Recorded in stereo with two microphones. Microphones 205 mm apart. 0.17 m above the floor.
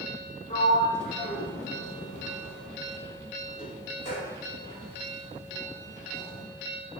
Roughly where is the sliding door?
Left.